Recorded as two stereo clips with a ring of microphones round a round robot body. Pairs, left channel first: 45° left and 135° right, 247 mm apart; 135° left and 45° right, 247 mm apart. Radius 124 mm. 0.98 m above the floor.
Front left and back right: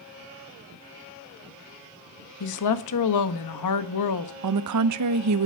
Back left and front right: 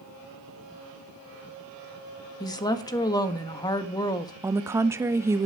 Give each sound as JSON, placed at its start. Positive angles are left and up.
{"t": 2.4, "sound": "a woman speaking", "azimuth_deg": 60, "distance_m": 1.3}
{"t": 4.4, "sound": "a woman speaking", "azimuth_deg": -125, "distance_m": 0.8}